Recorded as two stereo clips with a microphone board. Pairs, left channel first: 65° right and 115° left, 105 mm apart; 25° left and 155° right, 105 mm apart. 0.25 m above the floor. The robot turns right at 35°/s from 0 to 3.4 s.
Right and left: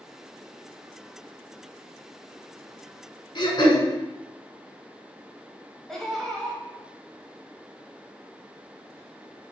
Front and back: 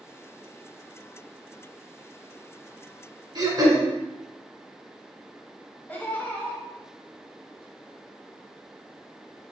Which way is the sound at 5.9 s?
10° left.